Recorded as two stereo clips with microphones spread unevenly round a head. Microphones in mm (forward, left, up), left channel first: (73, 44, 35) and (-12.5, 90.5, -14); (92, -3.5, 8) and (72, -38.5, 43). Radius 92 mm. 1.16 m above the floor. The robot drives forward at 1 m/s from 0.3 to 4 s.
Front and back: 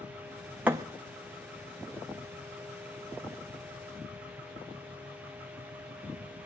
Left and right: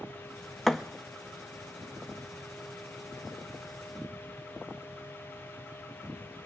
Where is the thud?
100° right, 0.5 m; by 0.8 s 125° right, 0.6 m.